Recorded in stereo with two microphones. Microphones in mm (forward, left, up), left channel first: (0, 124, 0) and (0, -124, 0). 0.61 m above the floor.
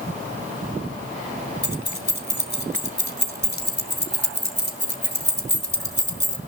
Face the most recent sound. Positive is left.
turn(degrees=45)  # may be behind; listen again after turning